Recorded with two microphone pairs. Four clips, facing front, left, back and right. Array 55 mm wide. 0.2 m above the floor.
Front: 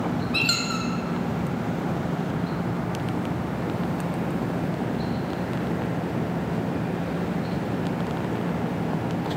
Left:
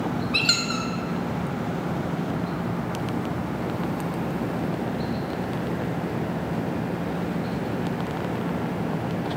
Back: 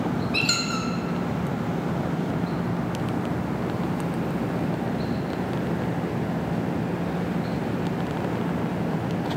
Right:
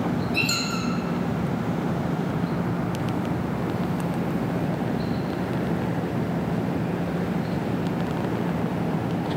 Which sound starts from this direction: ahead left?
A squeak, at 0.3 s.